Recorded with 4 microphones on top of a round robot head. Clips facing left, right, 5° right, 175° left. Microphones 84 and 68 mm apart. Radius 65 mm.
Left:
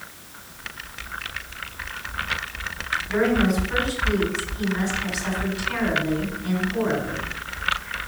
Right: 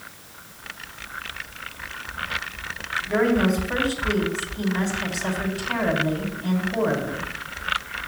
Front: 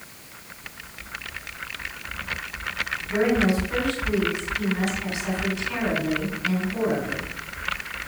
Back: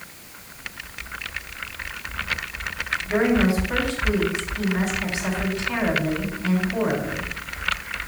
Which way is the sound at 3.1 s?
135° right.